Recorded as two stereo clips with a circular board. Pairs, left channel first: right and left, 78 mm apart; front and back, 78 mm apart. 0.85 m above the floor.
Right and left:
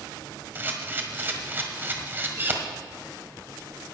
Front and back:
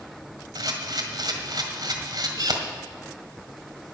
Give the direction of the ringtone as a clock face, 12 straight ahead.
I don't hear a ringtone.